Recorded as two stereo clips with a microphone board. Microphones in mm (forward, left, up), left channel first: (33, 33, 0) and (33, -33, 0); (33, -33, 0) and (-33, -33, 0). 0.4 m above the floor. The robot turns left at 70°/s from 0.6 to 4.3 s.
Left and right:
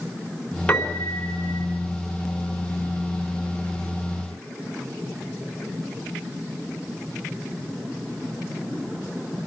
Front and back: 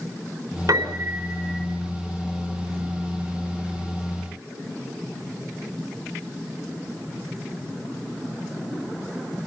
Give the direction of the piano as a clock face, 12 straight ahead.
6 o'clock.